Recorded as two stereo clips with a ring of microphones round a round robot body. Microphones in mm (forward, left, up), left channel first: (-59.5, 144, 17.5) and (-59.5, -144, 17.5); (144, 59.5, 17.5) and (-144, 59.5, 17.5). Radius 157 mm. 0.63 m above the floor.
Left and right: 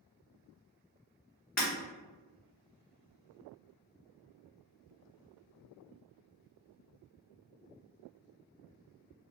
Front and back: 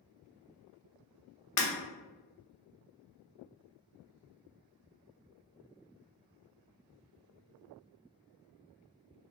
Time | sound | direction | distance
1.6 | breaking glass | 30° left | 0.8 m